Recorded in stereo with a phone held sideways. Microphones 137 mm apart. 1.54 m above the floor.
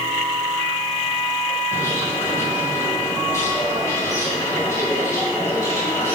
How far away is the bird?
About 5.5 m.